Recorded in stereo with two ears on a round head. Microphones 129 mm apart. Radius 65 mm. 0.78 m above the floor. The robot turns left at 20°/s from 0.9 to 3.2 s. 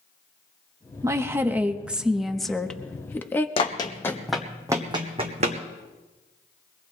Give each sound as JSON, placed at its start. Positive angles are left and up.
{"t": 1.0, "sound": "a woman speaking", "azimuth_deg": -155, "distance_m": 0.9}
{"t": 3.6, "sound": "running footsteps", "side_deg": 35, "distance_m": 1.7}